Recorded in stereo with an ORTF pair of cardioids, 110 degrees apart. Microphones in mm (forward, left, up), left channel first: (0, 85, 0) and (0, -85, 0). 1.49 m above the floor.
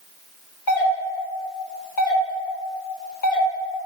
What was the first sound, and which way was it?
A doorbell, 65° left.